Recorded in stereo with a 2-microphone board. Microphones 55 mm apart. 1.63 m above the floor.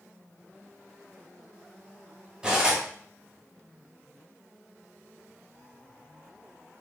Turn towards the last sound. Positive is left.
turn(degrees=-15)  # may be behind; listen again after turning